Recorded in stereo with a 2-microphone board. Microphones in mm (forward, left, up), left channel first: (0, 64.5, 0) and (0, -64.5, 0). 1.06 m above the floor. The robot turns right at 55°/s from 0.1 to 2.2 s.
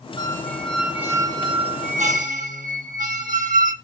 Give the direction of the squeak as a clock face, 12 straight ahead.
7 o'clock.